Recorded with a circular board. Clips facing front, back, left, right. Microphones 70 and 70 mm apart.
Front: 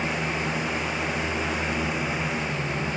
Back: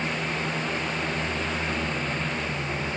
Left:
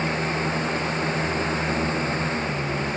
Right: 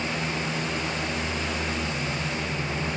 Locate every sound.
Only background noise.